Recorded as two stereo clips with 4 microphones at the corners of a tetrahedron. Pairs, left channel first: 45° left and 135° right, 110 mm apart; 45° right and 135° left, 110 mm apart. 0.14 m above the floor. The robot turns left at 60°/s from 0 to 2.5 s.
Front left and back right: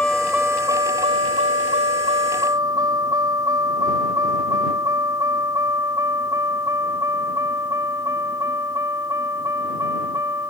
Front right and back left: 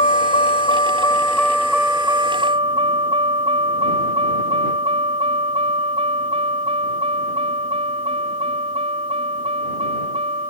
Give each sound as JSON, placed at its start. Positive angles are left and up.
{"t": 0.0, "sound": "a vehicle", "azimuth_deg": -30}